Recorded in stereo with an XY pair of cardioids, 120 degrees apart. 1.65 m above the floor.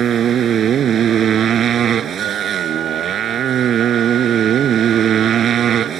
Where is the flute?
70° right.